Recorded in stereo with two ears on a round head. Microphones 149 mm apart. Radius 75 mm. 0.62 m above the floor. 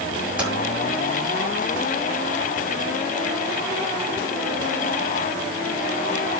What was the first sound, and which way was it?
Typing on a keyboard, 5° right (ahead or behind).